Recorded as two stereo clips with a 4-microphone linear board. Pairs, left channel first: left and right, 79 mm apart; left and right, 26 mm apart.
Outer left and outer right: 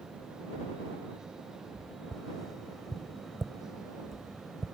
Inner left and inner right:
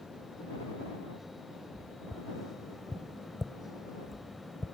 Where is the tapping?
Centre (ahead or behind).